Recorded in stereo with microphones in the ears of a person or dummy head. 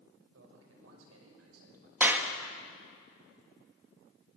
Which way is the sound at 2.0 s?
5° right (ahead or behind).